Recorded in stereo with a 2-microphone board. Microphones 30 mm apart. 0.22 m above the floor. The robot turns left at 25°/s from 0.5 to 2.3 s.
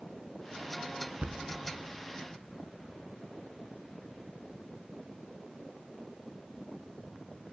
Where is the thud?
55° right (ahead or behind), 0.8 m.